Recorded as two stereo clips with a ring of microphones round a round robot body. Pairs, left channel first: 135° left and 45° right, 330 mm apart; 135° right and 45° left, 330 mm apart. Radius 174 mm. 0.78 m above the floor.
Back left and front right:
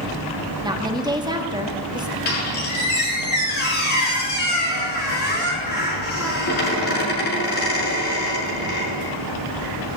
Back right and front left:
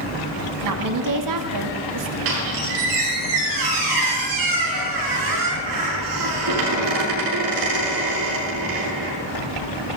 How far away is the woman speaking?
About 1.5 m.